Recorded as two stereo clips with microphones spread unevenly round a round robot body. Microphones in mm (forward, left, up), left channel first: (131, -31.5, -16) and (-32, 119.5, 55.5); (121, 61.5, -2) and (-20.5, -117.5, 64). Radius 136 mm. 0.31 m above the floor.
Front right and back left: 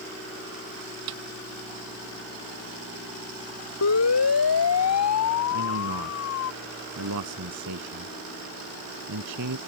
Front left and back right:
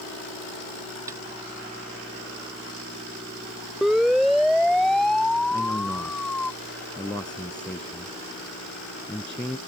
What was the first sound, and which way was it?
A snare drum, 155° left.